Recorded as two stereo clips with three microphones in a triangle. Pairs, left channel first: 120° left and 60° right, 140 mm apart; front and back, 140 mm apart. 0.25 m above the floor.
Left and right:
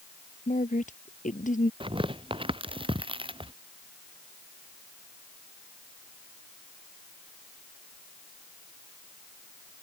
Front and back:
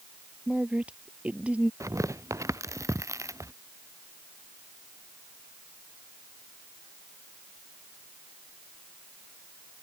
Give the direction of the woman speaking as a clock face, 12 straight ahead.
9 o'clock.